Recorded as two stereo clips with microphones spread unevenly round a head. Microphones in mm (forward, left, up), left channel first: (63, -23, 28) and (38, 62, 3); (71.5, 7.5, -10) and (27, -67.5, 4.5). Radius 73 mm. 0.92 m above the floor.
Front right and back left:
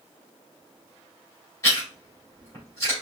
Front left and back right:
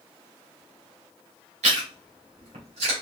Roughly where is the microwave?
I don't hear a microwave.